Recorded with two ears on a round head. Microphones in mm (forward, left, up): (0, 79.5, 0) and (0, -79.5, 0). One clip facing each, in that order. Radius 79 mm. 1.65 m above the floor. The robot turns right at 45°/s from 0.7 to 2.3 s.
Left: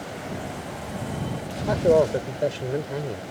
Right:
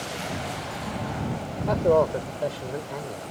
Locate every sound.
1.7 s a man speaking: 5° left (ahead or behind); by 3.2 s 35° left (ahead or behind)